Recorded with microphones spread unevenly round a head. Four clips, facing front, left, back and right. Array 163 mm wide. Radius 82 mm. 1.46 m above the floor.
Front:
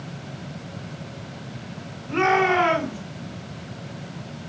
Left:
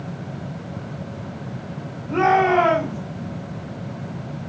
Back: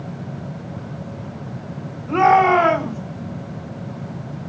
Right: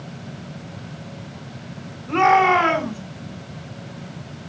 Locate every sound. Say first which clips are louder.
2.1 s a shout: right 2 dB, back 7 dB; 170° right, 6 m